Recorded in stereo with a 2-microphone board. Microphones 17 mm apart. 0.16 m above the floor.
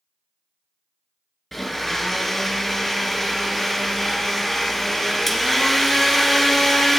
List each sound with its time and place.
1.5 s a blender: 5° left (ahead or behind), 1.4 m